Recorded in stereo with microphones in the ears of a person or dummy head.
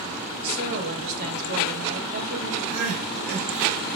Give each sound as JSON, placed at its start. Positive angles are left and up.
{"t": 0.4, "sound": "a woman speaking", "side_deg": -40, "distance_m": 1.8}
{"t": 2.7, "sound": "crying", "side_deg": -50, "distance_m": 1.8}